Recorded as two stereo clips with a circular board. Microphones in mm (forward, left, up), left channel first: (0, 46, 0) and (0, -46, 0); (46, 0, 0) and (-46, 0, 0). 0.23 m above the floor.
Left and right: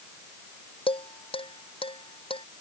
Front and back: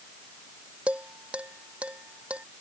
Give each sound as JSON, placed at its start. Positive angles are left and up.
{"t": 0.9, "sound": "dishes clattering", "azimuth_deg": 100}